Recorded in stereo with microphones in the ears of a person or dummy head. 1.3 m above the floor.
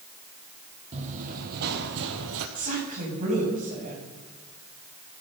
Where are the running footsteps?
35° right (ahead or behind), 3 m; by 2.5 s 60° right (ahead or behind), 2.5 m.